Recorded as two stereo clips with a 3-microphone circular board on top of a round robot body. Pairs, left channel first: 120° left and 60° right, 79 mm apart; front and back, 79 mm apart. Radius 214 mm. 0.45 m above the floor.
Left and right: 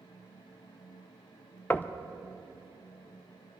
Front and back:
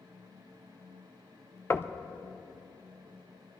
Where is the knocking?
55° left, 0.7 m.